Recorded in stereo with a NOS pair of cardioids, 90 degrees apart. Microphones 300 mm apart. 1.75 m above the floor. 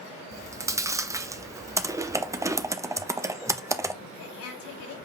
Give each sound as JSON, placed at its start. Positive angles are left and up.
{"t": 0.3, "sound": "chewing", "azimuth_deg": -10, "distance_m": 0.7}
{"t": 1.8, "sound": "typing on a keyboard", "azimuth_deg": -10, "distance_m": 0.8}
{"t": 4.0, "sound": "a woman speaking", "azimuth_deg": 65, "distance_m": 4.5}